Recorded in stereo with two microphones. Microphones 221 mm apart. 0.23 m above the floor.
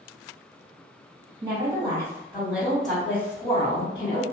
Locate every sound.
1.4 s a woman speaking: 25° right (ahead or behind), 1.8 m; by 4.2 s 30° left (ahead or behind), 1.6 m